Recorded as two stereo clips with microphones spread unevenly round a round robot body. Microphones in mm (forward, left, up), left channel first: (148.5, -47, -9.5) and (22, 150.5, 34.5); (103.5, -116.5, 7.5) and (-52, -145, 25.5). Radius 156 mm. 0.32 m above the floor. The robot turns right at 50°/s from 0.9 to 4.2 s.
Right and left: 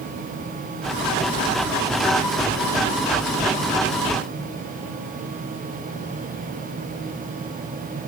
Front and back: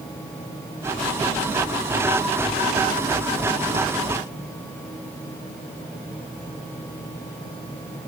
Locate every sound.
Only background noise.